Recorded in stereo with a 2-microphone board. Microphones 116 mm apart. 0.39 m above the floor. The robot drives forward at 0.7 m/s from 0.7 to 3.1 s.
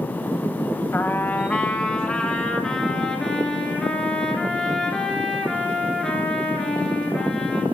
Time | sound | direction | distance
0.9 | a trumpet | 20° left (ahead or behind) | 0.6 m